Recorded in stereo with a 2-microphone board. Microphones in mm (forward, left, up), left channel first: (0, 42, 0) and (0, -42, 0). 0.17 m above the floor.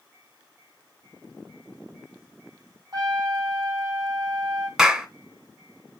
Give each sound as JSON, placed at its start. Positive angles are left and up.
{"t": 2.9, "sound": "a trumpet", "side_deg": -50, "distance_m": 4.5}
{"t": 4.8, "sound": "a clap", "side_deg": -5, "distance_m": 0.9}